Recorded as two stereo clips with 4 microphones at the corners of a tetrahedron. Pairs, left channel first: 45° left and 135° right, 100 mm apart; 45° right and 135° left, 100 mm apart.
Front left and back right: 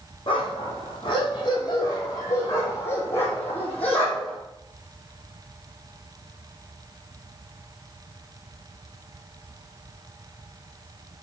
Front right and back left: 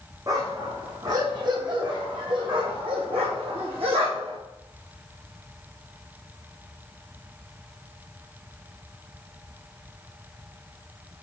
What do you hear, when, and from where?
0.3 s a dog barking: 80° left, 3.5 m; by 4.4 s 130° left, 3 m